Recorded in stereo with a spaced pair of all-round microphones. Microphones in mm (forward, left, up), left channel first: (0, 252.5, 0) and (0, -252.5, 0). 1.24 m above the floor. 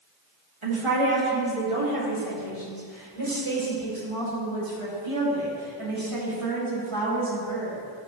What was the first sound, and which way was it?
A woman speaking, 70° right (ahead or behind).